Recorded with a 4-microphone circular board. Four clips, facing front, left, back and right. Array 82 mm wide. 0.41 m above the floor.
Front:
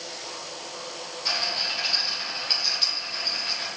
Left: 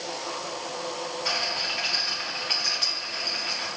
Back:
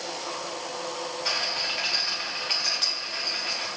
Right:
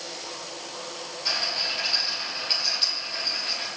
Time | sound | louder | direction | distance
1.2 | a rattle | right 1 dB, front 3 dB | 140° left | 1.2 m